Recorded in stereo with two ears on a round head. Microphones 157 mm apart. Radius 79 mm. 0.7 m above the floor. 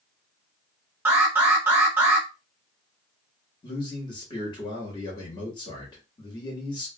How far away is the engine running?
I don't hear an engine running.